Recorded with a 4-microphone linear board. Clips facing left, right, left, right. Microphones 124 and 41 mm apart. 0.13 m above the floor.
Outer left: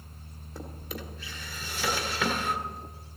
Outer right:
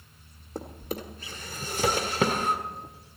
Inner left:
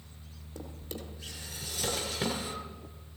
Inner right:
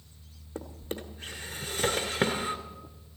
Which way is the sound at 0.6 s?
45° right (ahead or behind).